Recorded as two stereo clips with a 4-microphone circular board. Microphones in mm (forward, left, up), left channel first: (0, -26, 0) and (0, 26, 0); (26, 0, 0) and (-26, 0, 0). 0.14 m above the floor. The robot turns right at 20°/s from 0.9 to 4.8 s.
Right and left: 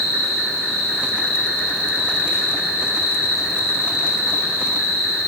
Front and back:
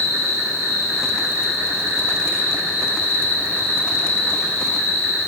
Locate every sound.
0.0 s an insect: 165° right, 1.0 m; by 5.3 s 90° right, 1.0 m